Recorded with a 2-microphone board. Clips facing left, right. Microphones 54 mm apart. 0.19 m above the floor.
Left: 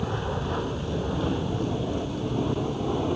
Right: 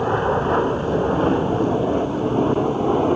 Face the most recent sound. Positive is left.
turn(degrees=-35)  # may be behind; listen again after turning